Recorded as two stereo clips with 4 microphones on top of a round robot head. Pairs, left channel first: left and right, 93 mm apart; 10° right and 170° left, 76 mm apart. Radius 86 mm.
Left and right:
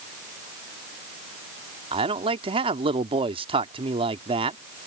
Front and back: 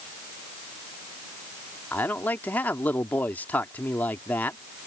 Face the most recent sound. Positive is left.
turn(degrees=-80)